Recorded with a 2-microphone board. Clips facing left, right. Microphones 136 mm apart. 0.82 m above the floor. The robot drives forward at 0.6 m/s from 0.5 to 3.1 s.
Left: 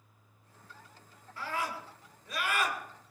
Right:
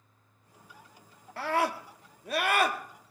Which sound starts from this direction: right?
A scream, at 1.4 s.